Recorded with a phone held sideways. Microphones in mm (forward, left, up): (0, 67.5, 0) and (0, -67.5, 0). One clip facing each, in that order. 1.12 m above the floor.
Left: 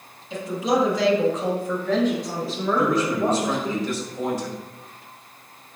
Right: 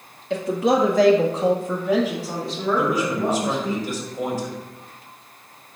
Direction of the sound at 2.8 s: 10° right (ahead or behind).